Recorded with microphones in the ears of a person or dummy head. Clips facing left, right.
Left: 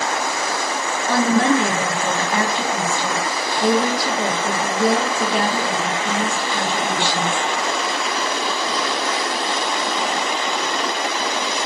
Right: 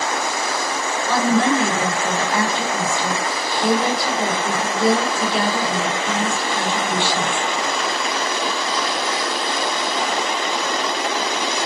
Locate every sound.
1.1 s a woman speaking: 45° left (ahead or behind), 1.5 m